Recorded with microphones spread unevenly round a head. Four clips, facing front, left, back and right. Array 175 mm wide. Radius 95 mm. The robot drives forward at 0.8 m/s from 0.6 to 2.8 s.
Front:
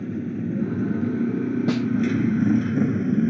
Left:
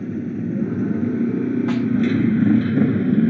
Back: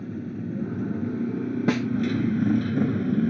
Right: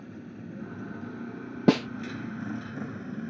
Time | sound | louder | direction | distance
0.0 | a motorcycle | left 17 dB, front 5 dB | 60° left | ?
1.7 | a snare drum | left 2 dB, back 1 dB | 105° right | ?